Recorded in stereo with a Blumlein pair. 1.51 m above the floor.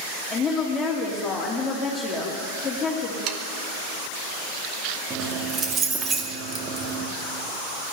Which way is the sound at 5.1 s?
20° right.